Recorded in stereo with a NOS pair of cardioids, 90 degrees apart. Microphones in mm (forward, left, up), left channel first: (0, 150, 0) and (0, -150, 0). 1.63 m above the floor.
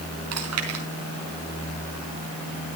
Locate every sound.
0.3 s chewing: 60° right, 4.5 m